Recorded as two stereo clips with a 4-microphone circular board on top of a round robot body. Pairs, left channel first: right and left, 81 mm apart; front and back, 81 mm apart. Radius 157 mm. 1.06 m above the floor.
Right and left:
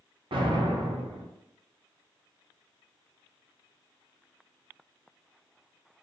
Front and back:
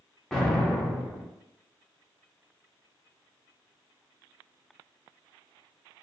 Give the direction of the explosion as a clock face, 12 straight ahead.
9 o'clock.